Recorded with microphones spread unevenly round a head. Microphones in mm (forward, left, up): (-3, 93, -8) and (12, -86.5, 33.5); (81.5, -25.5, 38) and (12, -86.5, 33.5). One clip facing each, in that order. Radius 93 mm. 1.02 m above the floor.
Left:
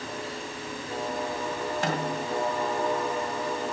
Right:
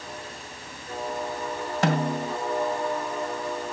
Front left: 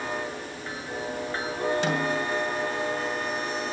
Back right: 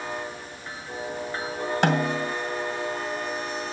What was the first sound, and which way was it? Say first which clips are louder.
A snare drum: right 8 dB, back right 3 dB; 105° right.